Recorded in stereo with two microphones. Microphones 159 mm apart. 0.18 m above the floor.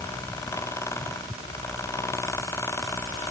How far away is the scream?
No scream in this recording.